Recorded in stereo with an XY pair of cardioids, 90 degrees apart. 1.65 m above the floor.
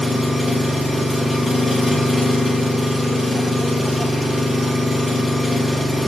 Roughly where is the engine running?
Ahead.